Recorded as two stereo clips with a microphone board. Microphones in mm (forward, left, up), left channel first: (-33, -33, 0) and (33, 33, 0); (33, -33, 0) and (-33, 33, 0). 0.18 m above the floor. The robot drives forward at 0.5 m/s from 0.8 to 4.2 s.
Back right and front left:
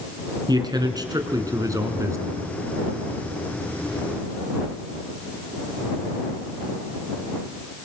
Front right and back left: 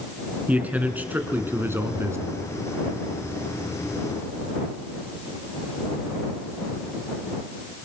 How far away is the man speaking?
About 2.5 m.